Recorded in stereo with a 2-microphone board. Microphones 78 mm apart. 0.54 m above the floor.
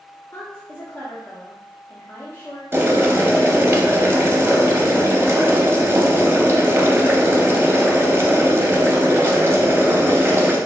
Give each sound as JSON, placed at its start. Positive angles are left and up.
{"t": 0.3, "sound": "a woman speaking", "side_deg": 30, "distance_m": 0.7}
{"t": 2.7, "sound": "boiling", "side_deg": -30, "distance_m": 0.5}